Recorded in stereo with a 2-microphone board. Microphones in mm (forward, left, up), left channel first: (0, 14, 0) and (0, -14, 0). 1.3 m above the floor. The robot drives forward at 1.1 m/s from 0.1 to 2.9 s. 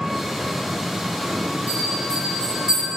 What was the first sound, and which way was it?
An engine running, 20° right (ahead or behind).